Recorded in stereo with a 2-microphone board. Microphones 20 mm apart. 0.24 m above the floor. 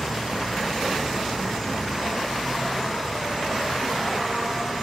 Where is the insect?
15° right (ahead or behind), 1.9 m.